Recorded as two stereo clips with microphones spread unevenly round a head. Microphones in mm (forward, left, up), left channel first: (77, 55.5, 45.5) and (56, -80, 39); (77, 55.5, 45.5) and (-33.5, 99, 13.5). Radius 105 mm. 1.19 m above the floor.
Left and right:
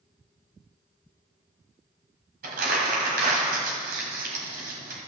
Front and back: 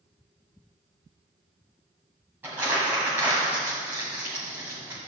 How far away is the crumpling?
About 1.6 m.